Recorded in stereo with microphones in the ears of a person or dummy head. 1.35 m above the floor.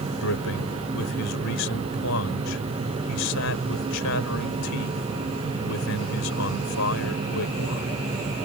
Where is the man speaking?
75° left (ahead or behind).